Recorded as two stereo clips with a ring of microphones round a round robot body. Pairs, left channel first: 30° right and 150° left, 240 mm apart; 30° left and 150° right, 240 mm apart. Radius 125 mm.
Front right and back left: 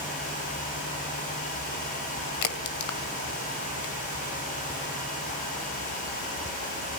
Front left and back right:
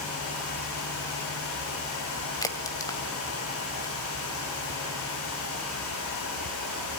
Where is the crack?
45° right, 2.0 m.